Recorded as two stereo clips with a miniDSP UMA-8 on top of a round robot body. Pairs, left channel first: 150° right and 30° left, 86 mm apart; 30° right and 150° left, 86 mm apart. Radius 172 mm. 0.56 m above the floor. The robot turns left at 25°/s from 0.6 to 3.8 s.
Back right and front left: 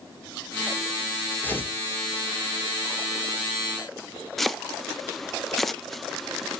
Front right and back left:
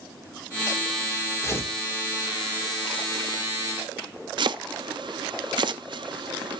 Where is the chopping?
120° left, 0.5 m.